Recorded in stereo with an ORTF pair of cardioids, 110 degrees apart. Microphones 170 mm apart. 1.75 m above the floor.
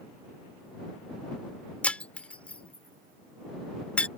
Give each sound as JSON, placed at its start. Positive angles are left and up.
{"t": 1.8, "sound": "breaking glass", "azimuth_deg": 5}